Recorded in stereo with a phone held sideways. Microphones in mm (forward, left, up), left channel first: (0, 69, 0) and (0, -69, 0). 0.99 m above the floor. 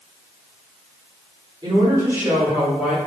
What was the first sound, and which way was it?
A woman speaking, 30° right (ahead or behind).